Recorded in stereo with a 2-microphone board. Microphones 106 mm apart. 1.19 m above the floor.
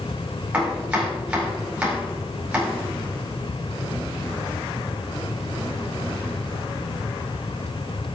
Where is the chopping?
15° right (ahead or behind), 4.5 m.